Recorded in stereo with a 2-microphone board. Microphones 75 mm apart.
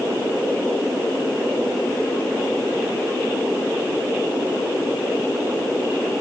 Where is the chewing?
No chewing in this recording.